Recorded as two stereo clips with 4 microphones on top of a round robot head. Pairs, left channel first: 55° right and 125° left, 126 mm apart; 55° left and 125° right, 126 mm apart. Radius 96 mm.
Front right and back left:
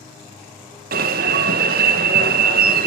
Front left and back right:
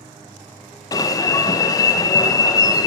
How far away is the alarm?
About 0.8 m.